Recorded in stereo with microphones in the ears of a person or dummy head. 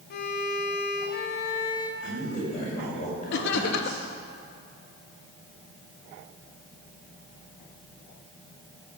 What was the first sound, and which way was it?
A violin, 60° left (ahead or behind).